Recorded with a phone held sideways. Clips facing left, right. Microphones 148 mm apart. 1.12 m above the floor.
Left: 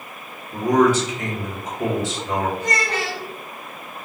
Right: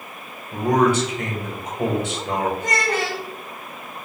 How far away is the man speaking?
About 1.2 m.